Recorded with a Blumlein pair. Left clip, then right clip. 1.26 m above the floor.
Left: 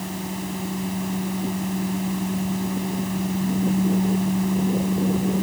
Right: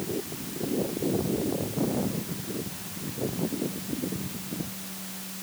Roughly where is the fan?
Ahead left.